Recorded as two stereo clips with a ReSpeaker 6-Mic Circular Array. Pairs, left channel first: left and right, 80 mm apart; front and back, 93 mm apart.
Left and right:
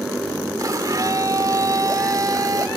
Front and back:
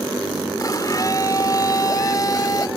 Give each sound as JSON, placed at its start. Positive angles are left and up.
{"t": 0.6, "sound": "a blender", "azimuth_deg": -50}